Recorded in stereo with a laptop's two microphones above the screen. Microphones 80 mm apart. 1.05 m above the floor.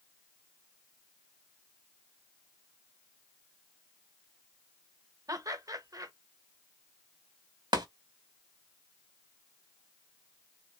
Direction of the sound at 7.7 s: 65° right (ahead or behind).